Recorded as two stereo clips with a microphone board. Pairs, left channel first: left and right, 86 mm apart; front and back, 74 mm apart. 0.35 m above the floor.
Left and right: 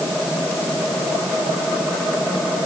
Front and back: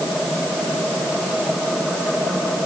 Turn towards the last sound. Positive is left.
No sound to turn to.